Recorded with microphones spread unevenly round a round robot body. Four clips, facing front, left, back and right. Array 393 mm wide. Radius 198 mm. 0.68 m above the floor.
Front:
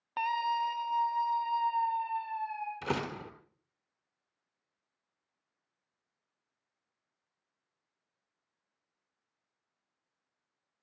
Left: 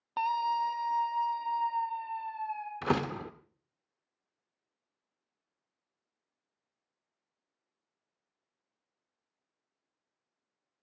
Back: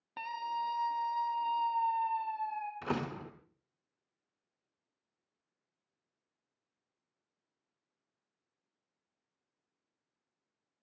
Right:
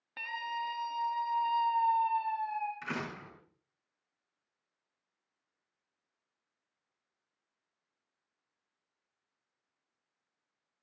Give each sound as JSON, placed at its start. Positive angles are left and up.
{"t": 0.2, "sound": "a scream", "azimuth_deg": 105, "distance_m": 0.8}
{"t": 2.8, "sound": "a door slam", "azimuth_deg": 75, "distance_m": 1.5}